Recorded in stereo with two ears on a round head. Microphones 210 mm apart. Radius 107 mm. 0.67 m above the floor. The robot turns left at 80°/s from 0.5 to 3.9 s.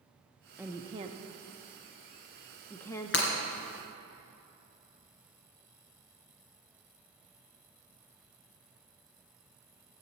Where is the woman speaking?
10° right (ahead or behind), 0.6 m; by 3.2 s 20° left (ahead or behind), 0.6 m.